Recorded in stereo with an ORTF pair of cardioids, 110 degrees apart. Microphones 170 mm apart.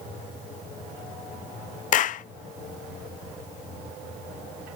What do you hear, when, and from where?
1.9 s a clap: 50° left, 0.5 m